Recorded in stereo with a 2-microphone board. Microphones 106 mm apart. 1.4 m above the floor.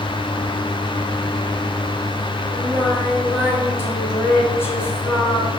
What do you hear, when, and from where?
2.5 s singing: 25° left (ahead or behind), 4 m